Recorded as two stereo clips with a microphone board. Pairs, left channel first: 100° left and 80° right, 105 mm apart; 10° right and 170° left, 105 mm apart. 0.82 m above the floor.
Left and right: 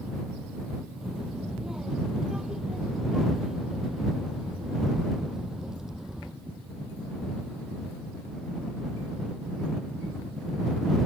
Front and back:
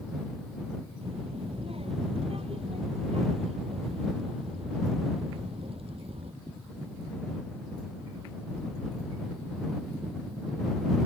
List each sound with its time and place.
1.0 s a child speaking: 165° right